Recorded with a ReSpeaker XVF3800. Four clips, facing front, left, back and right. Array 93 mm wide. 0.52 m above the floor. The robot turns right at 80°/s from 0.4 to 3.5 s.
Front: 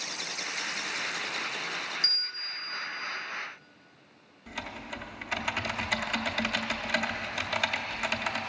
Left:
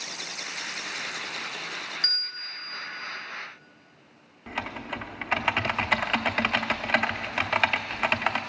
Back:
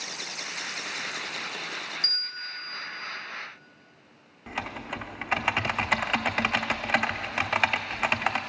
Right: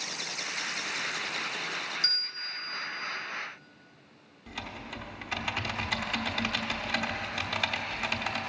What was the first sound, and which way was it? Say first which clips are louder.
A bell: left 1 dB, back 2 dB; 85° left.